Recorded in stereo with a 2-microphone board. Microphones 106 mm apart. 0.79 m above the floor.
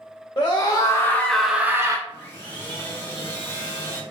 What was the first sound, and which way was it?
A scream, 45° left (ahead or behind).